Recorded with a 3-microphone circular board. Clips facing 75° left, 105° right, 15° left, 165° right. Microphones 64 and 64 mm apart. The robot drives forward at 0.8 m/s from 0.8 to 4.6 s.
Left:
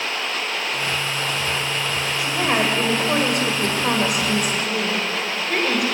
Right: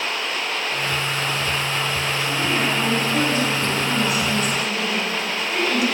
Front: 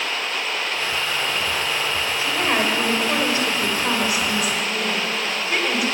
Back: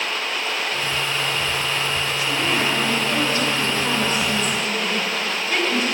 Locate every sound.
2.2 s a woman speaking: 75° left, 4.5 m; by 5.8 s 100° left, 4.5 m